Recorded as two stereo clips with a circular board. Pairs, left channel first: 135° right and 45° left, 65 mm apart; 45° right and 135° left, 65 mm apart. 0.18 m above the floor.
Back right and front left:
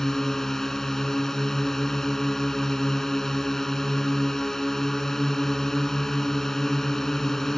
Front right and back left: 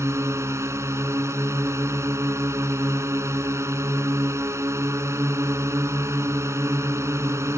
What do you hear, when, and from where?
0.0 s a drone: 140° left